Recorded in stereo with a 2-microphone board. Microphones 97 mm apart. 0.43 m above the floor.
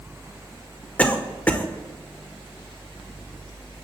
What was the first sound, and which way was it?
A cough, 15° left (ahead or behind).